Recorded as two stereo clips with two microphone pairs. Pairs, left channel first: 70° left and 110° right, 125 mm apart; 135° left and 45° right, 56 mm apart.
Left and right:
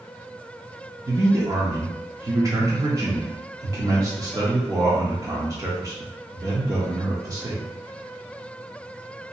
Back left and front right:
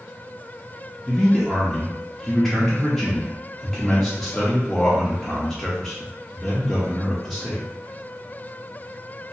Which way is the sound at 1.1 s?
145° right.